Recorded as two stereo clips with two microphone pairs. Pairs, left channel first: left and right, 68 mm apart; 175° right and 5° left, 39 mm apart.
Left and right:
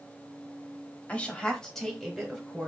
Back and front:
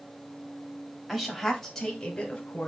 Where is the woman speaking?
65° left, 1.0 m; by 2.7 s 150° right, 1.0 m.